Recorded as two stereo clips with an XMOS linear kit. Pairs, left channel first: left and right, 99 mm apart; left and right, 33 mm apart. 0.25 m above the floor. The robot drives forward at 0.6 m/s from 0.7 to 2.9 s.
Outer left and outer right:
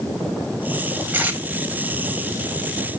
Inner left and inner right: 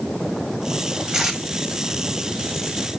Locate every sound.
1.1 s tape being pulled: 20° right (ahead or behind), 1.4 m; by 1.4 s 15° right (ahead or behind), 1.5 m